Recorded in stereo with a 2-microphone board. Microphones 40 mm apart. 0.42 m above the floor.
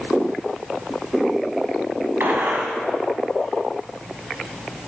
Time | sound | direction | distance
2.2 | a gunshot | 75° right (ahead or behind) | 1.0 m